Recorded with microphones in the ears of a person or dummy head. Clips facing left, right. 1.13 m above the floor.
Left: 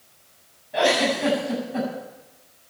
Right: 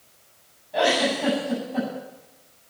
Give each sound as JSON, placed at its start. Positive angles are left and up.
{"t": 0.7, "sound": "a giggle", "side_deg": 5, "distance_m": 8.5}